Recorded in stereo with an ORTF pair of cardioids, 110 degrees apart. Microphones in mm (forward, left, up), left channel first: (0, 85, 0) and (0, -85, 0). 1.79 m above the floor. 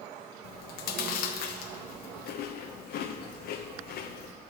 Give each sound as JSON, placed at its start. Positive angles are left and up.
{"t": 0.4, "sound": "chewing", "azimuth_deg": 70, "distance_m": 0.8}